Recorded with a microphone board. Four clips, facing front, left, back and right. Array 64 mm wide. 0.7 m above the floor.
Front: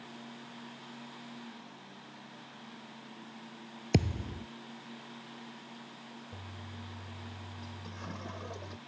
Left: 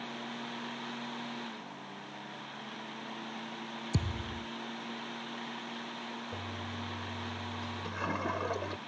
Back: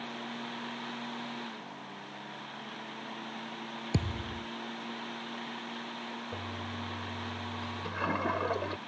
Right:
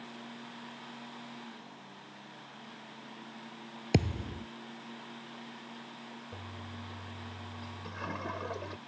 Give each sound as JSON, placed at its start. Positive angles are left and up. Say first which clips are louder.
{"t": 3.9, "sound": "a thud", "louder": "right 7 dB, front 4 dB", "azimuth_deg": -60}
{"t": 6.3, "sound": "a toilet flushing", "louder": "left 5 dB, back 9 dB", "azimuth_deg": 165}